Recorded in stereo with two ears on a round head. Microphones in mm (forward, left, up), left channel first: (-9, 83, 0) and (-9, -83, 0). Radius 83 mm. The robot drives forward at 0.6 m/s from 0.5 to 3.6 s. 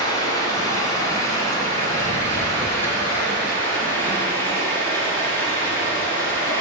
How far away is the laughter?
No laughter in this recording.